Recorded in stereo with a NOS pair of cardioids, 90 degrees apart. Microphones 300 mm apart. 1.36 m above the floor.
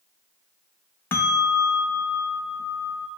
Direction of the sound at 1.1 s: 5° left.